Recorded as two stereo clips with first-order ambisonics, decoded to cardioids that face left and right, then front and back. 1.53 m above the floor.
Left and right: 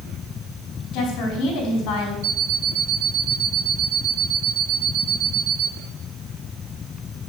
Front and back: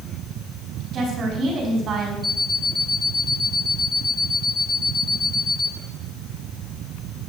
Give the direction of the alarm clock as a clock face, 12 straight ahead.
3 o'clock.